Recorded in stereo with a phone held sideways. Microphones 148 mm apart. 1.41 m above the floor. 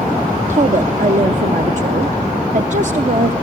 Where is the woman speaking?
55° right (ahead or behind), 0.6 m.